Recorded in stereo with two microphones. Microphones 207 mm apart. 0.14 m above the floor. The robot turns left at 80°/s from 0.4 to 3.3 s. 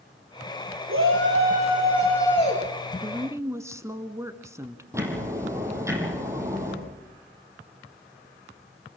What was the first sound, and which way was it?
A shout, 90° right.